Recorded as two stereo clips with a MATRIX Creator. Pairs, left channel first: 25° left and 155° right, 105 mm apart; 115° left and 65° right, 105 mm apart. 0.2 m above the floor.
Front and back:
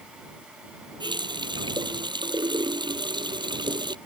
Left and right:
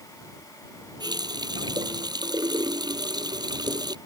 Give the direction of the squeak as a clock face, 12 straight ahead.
I don't hear a squeak.